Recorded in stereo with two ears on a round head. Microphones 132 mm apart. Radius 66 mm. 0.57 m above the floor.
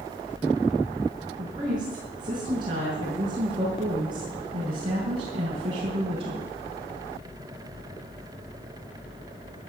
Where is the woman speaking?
30° right (ahead or behind), 6.5 m; by 6.5 s 40° right (ahead or behind), 3 m.